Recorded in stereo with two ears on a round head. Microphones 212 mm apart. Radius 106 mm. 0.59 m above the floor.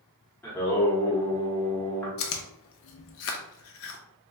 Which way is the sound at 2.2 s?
60° left (ahead or behind).